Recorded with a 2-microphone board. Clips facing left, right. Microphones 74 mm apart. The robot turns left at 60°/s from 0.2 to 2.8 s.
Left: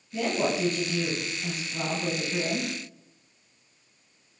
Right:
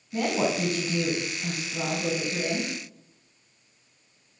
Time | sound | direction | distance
0.1 | a woman speaking | 95° right | 1.3 m